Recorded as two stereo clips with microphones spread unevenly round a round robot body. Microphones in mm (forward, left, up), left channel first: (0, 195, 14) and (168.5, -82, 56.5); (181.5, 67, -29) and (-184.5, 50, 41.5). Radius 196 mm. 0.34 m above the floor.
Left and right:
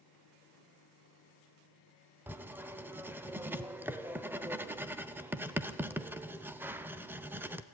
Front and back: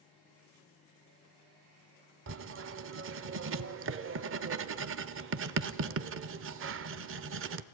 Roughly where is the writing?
Behind right.